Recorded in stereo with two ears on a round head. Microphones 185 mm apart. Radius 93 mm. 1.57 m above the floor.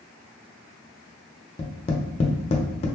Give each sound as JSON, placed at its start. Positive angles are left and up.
{"t": 1.6, "sound": "tapping", "side_deg": 30, "distance_m": 0.8}